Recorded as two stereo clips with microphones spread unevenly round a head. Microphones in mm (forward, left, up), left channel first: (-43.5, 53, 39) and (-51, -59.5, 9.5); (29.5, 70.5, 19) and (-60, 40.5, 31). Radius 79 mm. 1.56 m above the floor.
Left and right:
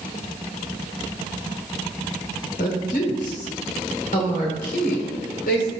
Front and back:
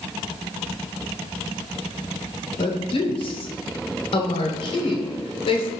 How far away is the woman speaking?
About 0.9 m.